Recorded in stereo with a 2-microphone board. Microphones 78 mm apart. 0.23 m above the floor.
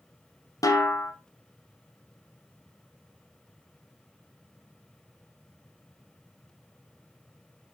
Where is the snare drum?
50° left (ahead or behind), 1.2 m.